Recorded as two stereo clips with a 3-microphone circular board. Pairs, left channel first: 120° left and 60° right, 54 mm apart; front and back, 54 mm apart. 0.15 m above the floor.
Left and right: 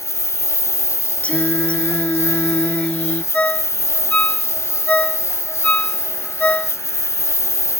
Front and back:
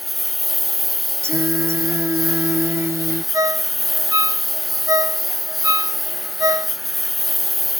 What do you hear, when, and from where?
0.0 s a lawn mower: 90° left
1.2 s singing: straight behind
3.3 s a ringtone: 175° right